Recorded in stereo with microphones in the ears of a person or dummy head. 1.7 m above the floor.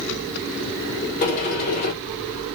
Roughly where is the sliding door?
Left.